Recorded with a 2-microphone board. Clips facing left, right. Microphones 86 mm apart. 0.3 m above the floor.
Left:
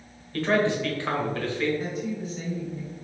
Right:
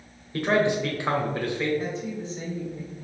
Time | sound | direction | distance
0.3 | a man speaking | 15° right (ahead or behind) | 0.9 m
1.8 | a woman speaking | 25° right (ahead or behind) | 1.7 m